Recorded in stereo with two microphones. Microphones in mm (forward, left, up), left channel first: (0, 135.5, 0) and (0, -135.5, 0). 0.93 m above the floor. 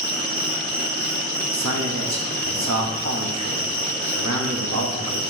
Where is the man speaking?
80° right, 1.0 m.